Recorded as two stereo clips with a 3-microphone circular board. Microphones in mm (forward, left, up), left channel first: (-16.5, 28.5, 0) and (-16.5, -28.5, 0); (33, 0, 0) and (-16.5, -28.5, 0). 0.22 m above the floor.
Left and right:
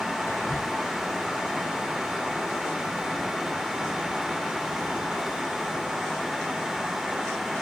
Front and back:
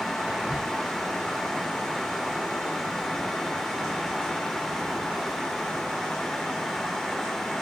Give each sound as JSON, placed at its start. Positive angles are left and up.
{"t": 0.3, "sound": "whispering", "azimuth_deg": 135, "distance_m": 3.5}